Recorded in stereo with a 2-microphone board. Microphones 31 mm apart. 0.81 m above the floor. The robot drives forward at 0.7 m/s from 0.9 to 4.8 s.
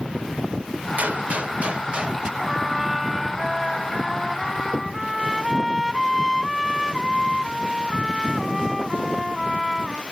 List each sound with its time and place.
1.0 s a gunshot: 60° right (ahead or behind); by 2.3 s 30° right (ahead or behind)
2.4 s a trumpet: centre (ahead or behind)